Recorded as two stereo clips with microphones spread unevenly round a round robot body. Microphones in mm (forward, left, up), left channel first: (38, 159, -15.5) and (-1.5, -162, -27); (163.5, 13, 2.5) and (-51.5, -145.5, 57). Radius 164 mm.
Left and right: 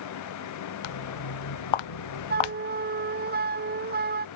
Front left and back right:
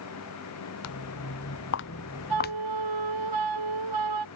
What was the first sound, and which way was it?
Footsteps, 85° left.